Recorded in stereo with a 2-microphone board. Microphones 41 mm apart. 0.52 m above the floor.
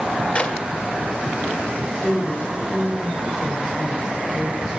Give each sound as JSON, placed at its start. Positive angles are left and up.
{"t": 0.3, "sound": "a clap", "side_deg": 30, "distance_m": 1.4}
{"t": 1.7, "sound": "a woman speaking", "side_deg": 10, "distance_m": 3.0}